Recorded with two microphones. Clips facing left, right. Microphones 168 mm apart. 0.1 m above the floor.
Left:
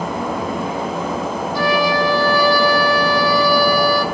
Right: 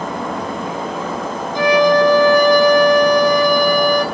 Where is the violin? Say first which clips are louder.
Right 6 dB; 20° right (ahead or behind), 2.5 m.